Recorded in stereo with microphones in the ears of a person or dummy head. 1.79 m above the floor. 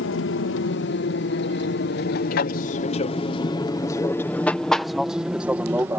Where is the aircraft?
65° left (ahead or behind); by 6.0 s 10° right (ahead or behind).